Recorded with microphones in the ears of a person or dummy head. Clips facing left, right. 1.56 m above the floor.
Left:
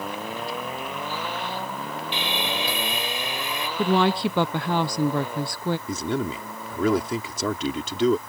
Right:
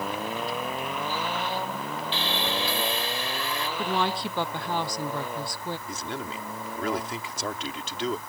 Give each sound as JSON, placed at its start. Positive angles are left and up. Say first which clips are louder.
{"t": 2.1, "sound": "sawing", "louder": "left 1 dB", "side_deg": 15}
{"t": 3.8, "sound": "a woman speaking", "louder": "left 8 dB", "side_deg": 55}
{"t": 5.9, "sound": "a man speaking", "louder": "left 8 dB", "side_deg": 85}